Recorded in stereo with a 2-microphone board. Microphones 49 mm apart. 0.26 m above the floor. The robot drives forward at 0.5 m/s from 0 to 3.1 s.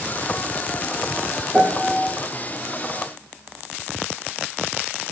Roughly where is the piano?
Centre.